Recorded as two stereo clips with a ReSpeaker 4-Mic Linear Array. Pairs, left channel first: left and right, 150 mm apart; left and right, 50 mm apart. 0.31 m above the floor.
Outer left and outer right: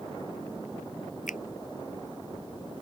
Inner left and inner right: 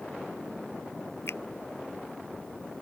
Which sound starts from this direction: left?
A finger snap, at 1.3 s.